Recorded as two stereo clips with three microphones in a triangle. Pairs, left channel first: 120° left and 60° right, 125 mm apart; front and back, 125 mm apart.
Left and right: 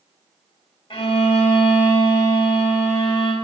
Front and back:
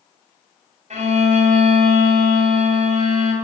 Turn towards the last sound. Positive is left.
turn(degrees=160)